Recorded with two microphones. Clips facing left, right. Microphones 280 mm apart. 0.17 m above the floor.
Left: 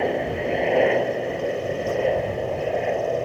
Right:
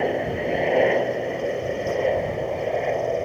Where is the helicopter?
Centre (ahead or behind).